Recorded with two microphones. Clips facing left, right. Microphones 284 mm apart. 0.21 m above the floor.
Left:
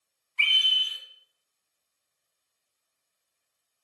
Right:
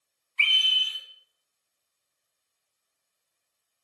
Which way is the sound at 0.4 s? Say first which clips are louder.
Right 1 dB; 60° left (ahead or behind).